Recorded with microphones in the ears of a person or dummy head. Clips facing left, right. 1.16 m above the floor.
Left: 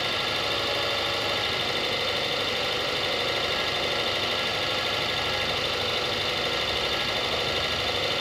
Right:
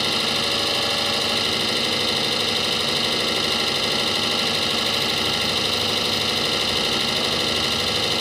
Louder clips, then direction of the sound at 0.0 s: Right 4 dB; 65° right (ahead or behind).